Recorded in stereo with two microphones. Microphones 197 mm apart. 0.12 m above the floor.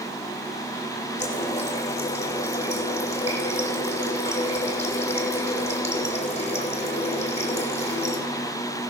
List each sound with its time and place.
1.2 s a running tap: 35° left (ahead or behind), 3.5 m